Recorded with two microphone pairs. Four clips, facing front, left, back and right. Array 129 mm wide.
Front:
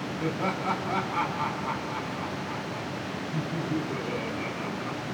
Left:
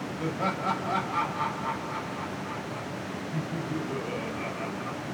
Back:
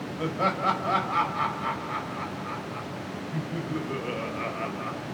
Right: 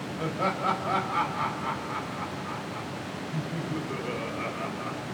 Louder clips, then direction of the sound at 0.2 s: Right 2 dB, back 4 dB; 160° right.